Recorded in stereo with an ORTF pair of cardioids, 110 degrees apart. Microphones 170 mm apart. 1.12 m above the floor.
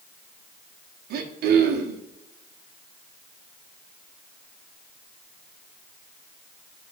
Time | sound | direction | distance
1.1 | throat clearing | 70° right | 1.3 m